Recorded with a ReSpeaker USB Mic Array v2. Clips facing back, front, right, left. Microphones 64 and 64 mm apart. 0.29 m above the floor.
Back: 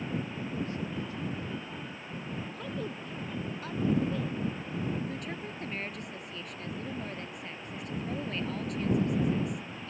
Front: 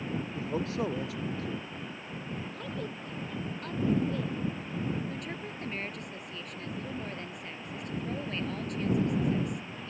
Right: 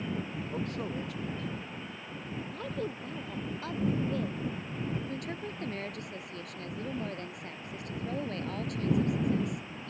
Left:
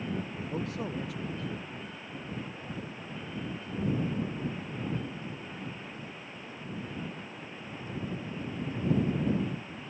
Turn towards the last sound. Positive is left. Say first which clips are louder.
# even, right 3 dB
turn(degrees=-90)